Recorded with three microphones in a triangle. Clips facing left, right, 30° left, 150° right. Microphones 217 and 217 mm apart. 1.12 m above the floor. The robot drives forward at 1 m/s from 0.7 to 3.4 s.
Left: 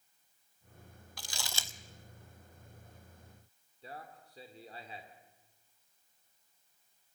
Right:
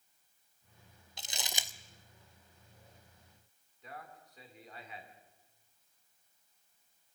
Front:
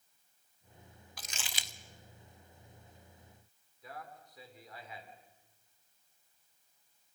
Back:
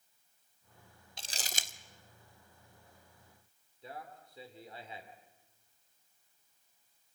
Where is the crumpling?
125° right, 0.6 m; by 1.7 s 165° right, 0.9 m.